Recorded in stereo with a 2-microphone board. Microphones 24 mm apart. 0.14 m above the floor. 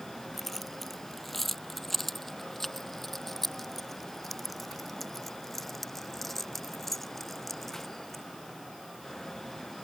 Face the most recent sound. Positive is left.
turn(degrees=10)  # may be behind; listen again after turning